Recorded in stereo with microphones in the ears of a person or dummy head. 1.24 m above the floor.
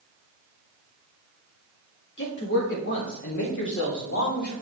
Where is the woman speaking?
60° left (ahead or behind), 2 m; by 4.5 s 65° left (ahead or behind), 4 m.